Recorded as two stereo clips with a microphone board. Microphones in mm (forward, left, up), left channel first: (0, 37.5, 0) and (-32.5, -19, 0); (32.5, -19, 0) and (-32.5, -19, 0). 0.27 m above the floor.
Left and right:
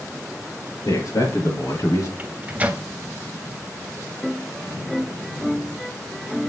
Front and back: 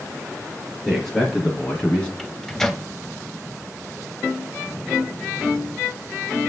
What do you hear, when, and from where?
0.8 s a man speaking: 85° left, 5 m; by 2.1 s 70° left, 4 m
2.2 s a microwave: 75° right, 0.9 m